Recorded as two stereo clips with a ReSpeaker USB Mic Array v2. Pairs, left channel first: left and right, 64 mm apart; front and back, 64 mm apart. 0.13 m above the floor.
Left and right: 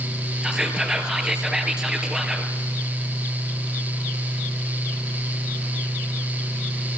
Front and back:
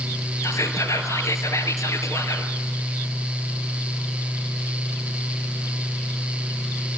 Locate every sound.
0.4 s whispering: 15° right, 2.5 m